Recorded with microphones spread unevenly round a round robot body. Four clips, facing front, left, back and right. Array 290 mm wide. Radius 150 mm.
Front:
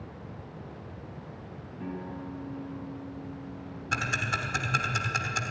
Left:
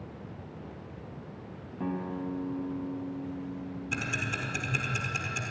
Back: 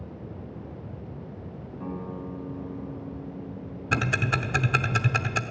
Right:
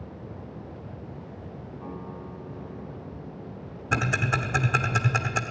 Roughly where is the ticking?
Behind right.